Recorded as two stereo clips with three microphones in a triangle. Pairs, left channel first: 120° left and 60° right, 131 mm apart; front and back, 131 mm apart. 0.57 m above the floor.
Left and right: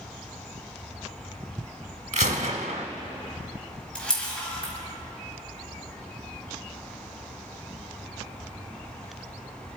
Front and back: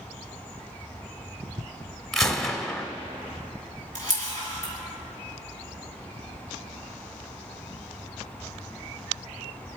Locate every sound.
2.1 s a gunshot: 85° right, 0.9 m
4.0 s a camera shutter: 155° right, 3 m